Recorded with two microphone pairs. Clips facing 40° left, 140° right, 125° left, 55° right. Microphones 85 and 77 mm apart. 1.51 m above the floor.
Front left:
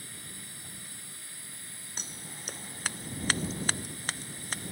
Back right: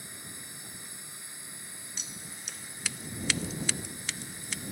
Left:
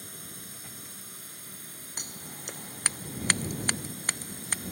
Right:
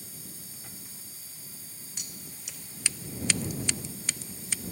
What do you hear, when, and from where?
0.0 s a drone: 150° left
2.0 s scissors: 80° left